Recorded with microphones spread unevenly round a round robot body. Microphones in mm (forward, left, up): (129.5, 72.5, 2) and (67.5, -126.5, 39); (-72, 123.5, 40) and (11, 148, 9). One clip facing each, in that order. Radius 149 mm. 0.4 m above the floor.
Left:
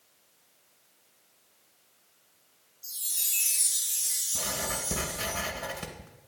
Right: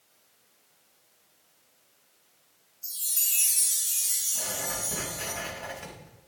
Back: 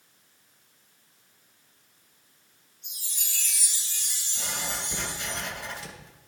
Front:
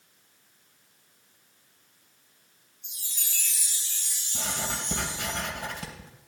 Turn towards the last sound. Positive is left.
turn(degrees=30)